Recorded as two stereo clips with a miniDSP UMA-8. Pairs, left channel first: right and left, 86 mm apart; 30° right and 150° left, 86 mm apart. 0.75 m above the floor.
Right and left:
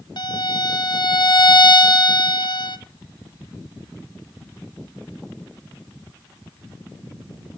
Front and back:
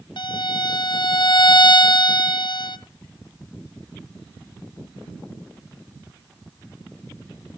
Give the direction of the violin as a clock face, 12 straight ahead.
2 o'clock.